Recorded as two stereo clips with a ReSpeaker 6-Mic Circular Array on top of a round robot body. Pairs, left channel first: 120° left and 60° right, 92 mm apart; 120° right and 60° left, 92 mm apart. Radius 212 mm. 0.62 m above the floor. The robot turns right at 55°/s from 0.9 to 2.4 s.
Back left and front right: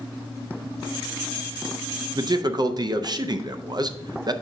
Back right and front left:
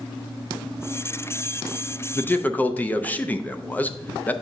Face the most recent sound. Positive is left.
turn(degrees=-55)